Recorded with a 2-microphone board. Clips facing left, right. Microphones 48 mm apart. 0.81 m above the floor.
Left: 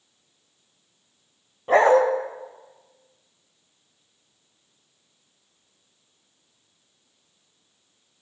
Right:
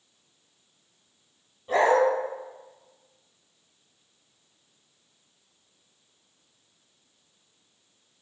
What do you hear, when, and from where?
1.7 s a dog barking: 50° left (ahead or behind), 0.8 m